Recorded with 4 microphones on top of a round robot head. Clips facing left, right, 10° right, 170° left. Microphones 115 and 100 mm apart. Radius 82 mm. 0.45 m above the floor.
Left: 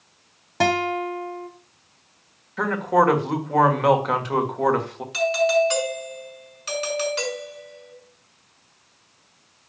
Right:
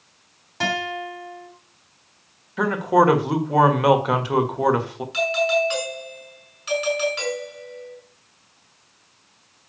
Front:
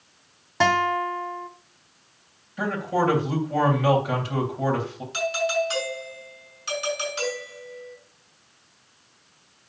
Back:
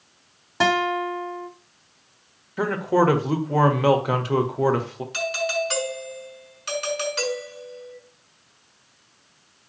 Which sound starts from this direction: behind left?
A doorbell, at 5.1 s.